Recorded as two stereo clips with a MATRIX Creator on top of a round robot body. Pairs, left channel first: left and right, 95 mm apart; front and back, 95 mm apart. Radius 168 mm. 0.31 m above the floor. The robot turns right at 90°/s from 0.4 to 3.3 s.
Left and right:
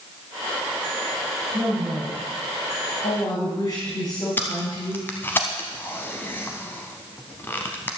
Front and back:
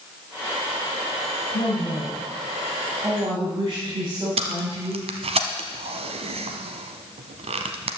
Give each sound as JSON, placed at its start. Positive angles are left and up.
{"t": 1.5, "sound": "a woman speaking", "azimuth_deg": -35, "distance_m": 3.5}
{"t": 4.4, "sound": "tape being pulled", "azimuth_deg": 160, "distance_m": 0.8}